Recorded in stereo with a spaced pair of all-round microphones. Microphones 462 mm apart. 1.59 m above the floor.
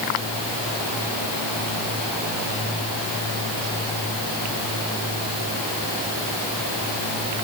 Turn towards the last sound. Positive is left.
No sound to turn to.